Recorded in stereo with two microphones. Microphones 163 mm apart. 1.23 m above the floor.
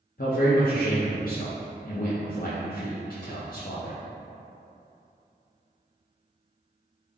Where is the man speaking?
55° left (ahead or behind), 0.6 m.